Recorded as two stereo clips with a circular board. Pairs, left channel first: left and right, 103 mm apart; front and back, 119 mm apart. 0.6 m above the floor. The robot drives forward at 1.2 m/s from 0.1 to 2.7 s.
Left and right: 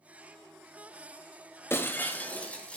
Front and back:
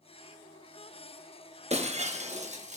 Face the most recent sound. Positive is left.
turn(degrees=170)